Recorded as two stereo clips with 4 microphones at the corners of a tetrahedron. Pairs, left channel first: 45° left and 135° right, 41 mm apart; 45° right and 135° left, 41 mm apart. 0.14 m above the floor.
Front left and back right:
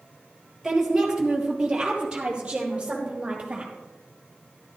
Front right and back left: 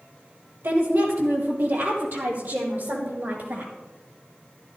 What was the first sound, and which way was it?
A woman speaking, 145° left.